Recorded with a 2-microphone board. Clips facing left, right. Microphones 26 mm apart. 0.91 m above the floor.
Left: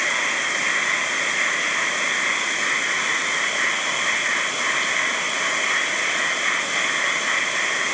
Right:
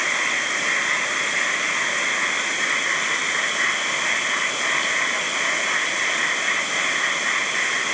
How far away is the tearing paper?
I don't hear tearing paper.